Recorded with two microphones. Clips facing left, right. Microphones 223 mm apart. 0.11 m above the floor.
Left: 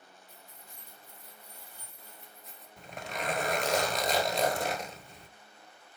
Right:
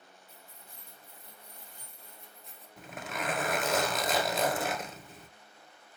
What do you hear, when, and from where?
0.3 s keys jangling: 15° left (ahead or behind), 3 m; by 2.7 s centre (ahead or behind), 1.5 m
2.8 s a zipper: 5° right (ahead or behind), 0.7 m